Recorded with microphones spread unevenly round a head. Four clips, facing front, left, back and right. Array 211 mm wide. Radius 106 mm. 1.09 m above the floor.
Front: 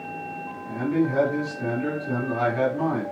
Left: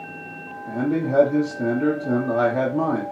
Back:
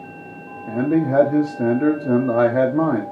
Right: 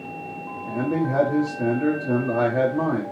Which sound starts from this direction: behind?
A man speaking, at 0.7 s.